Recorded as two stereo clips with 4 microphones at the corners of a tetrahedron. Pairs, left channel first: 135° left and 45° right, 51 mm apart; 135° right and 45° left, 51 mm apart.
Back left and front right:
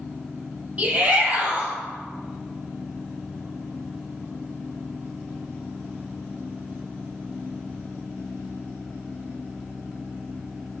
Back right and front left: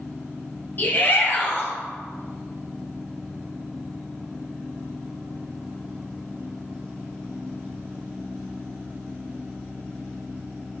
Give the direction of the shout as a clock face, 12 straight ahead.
3 o'clock.